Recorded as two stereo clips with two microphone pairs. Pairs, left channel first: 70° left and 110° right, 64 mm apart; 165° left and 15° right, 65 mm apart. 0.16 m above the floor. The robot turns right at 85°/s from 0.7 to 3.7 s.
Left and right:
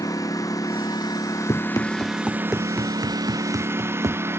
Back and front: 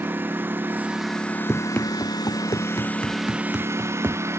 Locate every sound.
0.0 s a lawn mower: 45° left; by 4.4 s 60° right
1.5 s running footsteps: 75° left; by 4.2 s 75° right